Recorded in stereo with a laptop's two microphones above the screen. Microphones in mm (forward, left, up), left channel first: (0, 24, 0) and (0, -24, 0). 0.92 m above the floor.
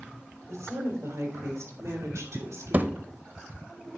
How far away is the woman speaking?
About 3.5 m.